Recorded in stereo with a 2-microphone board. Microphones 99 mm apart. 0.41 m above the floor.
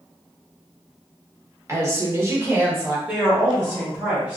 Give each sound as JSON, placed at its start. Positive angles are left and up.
{"t": 1.7, "sound": "a woman speaking", "side_deg": -25, "distance_m": 0.8}
{"t": 3.1, "sound": "a woman speaking", "side_deg": -15, "distance_m": 1.5}